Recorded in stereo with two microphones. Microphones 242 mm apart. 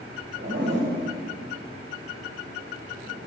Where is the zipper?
50° right (ahead or behind), 4 m.